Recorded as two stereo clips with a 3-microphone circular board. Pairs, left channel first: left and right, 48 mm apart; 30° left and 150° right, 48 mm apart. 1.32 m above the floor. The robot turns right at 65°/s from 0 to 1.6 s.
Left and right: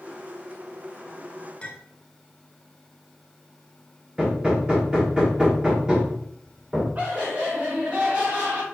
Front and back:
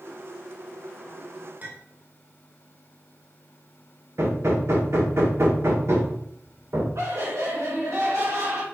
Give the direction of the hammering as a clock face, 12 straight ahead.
5 o'clock.